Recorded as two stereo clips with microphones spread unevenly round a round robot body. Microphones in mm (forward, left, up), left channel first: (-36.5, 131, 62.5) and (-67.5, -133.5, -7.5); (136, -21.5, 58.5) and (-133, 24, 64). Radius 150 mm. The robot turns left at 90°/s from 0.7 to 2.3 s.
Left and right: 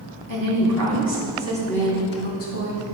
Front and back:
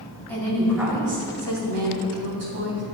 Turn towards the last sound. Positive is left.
turn(degrees=125)